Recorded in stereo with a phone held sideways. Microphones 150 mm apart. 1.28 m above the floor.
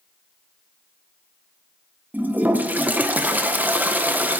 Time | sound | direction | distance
2.1 | a toilet flushing | 10° right (ahead or behind) | 0.7 m